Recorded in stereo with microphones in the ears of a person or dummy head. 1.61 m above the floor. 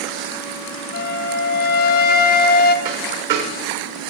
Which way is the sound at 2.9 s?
60° right (ahead or behind).